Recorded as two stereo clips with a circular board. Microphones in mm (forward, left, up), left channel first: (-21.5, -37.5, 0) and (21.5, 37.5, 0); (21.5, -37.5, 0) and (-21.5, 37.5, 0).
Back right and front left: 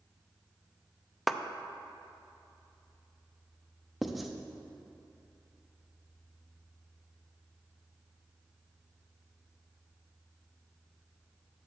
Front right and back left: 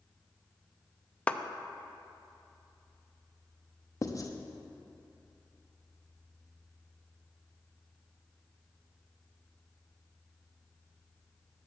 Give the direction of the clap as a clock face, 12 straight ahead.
1 o'clock.